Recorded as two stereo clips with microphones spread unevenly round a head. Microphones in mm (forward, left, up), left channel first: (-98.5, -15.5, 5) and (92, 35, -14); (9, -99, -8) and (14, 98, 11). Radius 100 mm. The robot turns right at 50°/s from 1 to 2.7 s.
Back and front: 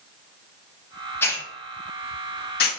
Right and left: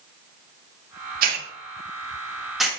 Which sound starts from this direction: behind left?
A hiss, at 1.2 s.